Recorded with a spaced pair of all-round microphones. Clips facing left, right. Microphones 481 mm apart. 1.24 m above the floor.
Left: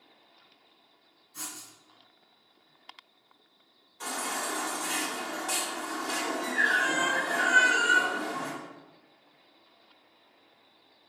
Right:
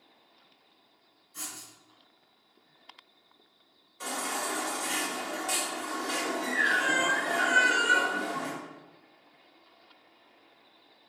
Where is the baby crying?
10° left (ahead or behind), 3 m.